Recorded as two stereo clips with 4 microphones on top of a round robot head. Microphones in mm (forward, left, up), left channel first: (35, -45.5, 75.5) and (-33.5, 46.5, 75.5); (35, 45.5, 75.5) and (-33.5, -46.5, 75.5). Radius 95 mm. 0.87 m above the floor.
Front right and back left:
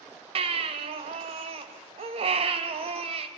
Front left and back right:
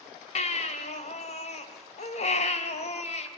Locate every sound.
0.3 s a baby crying: 85° left, 2.5 m